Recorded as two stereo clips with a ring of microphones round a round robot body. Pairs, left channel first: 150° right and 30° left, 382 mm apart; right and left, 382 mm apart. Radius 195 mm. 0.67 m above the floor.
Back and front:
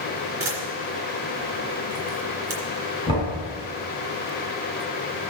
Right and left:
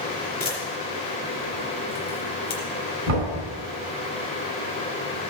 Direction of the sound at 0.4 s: 15° right.